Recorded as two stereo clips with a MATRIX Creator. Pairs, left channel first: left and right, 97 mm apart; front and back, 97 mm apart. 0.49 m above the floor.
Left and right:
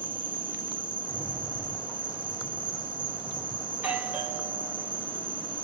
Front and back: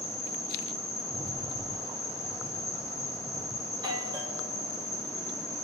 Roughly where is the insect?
Ahead right.